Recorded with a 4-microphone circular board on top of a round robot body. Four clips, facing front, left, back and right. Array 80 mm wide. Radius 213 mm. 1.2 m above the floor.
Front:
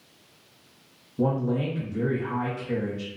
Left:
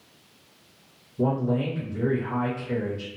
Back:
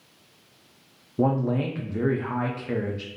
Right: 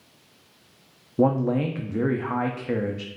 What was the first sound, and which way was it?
A man speaking, 115° right.